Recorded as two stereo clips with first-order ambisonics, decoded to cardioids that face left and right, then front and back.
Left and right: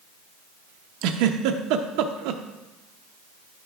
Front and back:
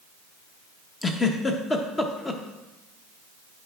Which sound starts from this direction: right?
A giggle, at 1.0 s.